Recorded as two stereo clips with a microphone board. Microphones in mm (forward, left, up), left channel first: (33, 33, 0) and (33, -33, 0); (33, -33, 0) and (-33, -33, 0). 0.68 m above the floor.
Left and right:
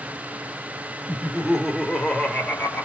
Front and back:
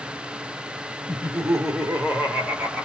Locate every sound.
1.1 s laughter: 145° right, 1.2 m; by 2.9 s 130° left, 1.0 m